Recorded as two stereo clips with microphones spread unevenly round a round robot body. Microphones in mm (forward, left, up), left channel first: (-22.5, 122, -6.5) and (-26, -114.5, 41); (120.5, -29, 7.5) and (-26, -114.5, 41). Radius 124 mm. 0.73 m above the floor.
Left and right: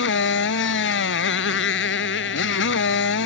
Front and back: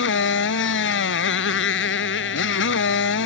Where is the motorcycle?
45° left.